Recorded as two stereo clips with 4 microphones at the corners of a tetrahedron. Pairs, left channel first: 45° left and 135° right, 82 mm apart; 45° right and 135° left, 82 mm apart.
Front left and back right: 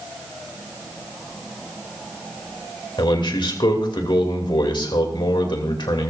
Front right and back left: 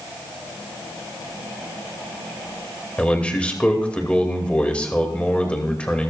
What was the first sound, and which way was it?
A man speaking, 30° left.